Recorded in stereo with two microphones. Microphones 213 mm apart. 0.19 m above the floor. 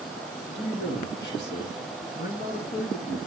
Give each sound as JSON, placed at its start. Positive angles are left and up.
{"t": 0.6, "sound": "a man speaking", "side_deg": 55, "distance_m": 5.0}